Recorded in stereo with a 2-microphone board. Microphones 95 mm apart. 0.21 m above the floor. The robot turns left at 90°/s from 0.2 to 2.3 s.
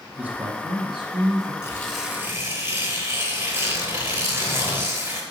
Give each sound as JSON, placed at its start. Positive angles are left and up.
{"t": 0.2, "sound": "a man speaking", "azimuth_deg": -15, "distance_m": 2.0}
{"t": 1.6, "sound": "tearing paper", "azimuth_deg": 30, "distance_m": 2.5}